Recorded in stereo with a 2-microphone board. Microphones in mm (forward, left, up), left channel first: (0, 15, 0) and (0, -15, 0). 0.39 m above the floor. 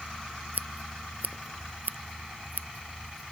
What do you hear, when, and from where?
0.5 s scissors: 70° right (ahead or behind)